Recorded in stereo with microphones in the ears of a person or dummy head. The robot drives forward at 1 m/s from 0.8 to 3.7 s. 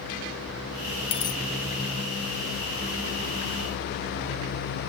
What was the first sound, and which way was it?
A dropped coin, 25° left (ahead or behind).